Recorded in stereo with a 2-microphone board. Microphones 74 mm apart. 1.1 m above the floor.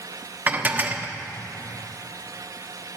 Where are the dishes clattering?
25° right (ahead or behind), 1.0 m.